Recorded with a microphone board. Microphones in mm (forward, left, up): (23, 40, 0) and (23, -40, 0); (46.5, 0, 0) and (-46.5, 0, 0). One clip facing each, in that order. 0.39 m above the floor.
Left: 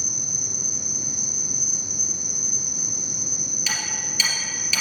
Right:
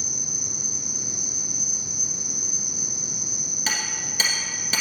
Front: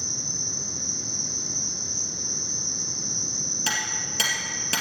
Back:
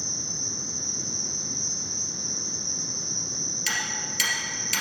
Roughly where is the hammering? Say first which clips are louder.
Right 1 dB, front 1 dB; ahead right.